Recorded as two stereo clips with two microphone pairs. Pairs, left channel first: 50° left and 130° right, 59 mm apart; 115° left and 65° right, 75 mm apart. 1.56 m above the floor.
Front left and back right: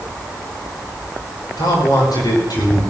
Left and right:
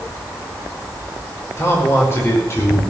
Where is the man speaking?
55° left, 5.5 m.